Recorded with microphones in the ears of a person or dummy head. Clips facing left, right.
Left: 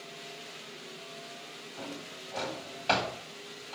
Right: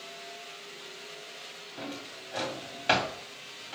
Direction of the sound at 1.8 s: 20° right (ahead or behind).